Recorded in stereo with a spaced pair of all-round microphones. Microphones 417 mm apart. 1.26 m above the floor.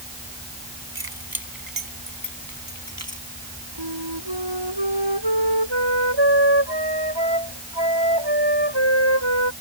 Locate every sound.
0.9 s keys jangling: 60° right (ahead or behind); by 3.2 s 35° right (ahead or behind)
3.8 s a flute: 85° right